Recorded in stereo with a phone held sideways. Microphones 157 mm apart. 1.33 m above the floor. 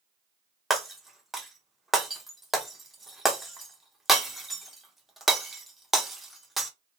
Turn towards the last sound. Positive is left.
turn(degrees=0)  # may be behind; listen again after turning